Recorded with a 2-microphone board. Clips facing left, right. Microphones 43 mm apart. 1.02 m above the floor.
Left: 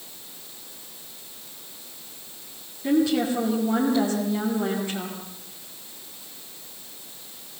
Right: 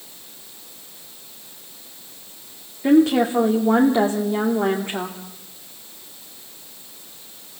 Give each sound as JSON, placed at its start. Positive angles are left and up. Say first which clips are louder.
{"t": 2.8, "sound": "a woman speaking", "louder": "right 6 dB", "side_deg": -50, "distance_m": 2.0}